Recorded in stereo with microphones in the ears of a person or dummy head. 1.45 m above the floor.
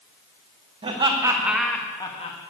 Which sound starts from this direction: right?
Laughter, at 0.8 s.